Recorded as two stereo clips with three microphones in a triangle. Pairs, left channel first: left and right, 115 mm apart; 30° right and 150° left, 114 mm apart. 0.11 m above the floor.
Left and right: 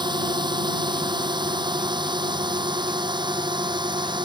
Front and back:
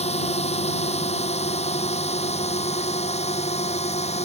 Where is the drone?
40° right.